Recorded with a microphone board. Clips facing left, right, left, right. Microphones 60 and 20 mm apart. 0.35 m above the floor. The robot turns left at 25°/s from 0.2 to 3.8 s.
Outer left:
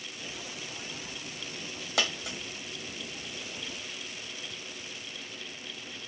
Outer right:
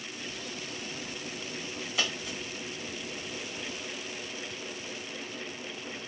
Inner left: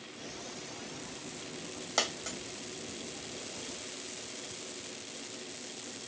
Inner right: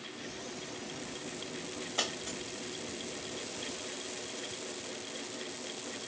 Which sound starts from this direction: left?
A dropped coin, at 2.0 s.